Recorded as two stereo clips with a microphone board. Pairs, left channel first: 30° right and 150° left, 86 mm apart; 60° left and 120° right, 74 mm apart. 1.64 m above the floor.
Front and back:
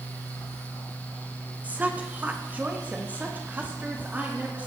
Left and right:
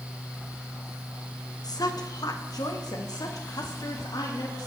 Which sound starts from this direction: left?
A woman speaking, at 1.6 s.